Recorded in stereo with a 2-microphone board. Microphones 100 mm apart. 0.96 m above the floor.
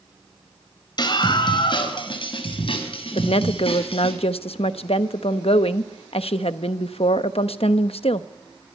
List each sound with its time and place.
1.0 s a scream: 50° left (ahead or behind), 4 m; by 4.1 s 70° left (ahead or behind), 7.5 m
3.1 s a woman speaking: 75° left (ahead or behind), 0.8 m